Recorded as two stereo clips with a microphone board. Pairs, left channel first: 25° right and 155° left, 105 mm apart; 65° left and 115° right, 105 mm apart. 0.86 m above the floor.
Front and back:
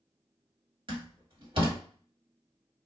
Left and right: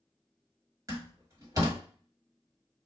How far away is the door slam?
About 1.6 m.